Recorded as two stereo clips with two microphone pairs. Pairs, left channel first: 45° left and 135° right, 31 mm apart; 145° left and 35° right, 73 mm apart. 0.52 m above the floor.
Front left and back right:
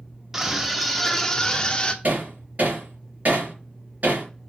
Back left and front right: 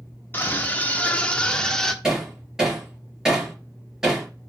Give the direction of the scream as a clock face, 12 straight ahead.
6 o'clock.